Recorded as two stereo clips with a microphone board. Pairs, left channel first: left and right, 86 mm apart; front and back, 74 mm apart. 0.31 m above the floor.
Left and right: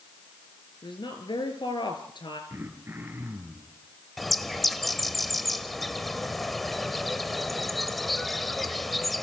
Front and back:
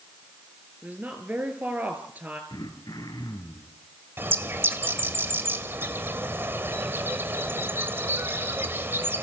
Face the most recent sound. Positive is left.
turn(degrees=180)